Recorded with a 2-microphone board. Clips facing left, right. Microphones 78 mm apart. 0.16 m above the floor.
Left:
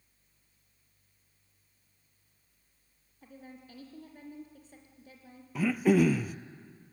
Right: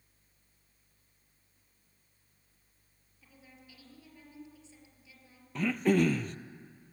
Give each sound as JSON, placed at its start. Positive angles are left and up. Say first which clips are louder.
{"t": 3.2, "sound": "a woman speaking", "louder": "left 8 dB", "side_deg": 45, "distance_m": 4.0}
{"t": 5.5, "sound": "throat clearing", "louder": "left 2 dB", "side_deg": 5, "distance_m": 0.6}